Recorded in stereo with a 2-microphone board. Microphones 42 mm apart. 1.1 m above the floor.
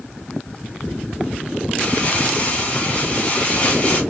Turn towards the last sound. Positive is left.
turn(degrees=30)  # may be behind; listen again after turning